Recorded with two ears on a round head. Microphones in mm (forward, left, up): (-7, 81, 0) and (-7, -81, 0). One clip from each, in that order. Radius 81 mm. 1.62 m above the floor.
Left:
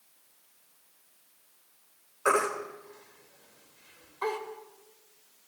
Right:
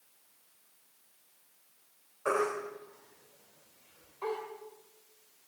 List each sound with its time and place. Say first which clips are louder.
2.2 s a baby crying: left 4 dB; 60° left (ahead or behind), 2 m